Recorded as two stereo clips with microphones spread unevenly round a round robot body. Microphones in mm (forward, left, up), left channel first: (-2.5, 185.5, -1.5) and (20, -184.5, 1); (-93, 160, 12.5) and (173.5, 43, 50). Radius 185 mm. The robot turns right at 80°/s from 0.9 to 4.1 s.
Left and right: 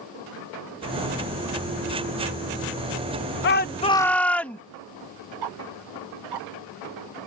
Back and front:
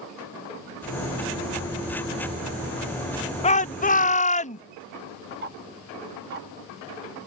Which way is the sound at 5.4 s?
85° right.